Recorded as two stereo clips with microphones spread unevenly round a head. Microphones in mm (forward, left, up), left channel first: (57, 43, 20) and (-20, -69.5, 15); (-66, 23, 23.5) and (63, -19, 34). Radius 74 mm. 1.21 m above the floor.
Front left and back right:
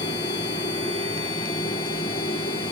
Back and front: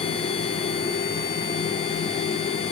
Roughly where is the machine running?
Behind left.